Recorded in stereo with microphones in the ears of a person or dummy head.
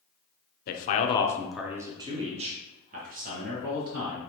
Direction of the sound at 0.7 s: 50° left (ahead or behind).